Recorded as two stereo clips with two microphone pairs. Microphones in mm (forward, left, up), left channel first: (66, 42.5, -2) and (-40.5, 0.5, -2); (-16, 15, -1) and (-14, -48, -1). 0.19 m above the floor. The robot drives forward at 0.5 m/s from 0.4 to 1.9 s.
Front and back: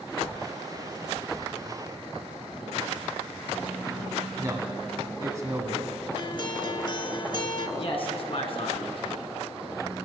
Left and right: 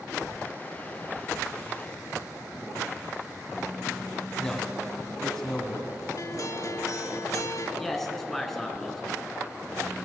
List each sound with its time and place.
4.4 s a man speaking: 165° left, 1.8 m
6.2 s a guitar: 65° left, 0.7 m
7.8 s a man speaking: 5° left, 1.9 m